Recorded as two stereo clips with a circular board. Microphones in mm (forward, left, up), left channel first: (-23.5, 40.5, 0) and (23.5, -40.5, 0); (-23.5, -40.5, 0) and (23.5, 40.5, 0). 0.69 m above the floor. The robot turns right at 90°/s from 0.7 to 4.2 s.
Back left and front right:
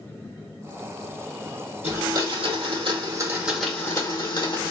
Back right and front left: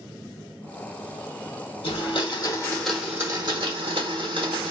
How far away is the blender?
About 0.9 m.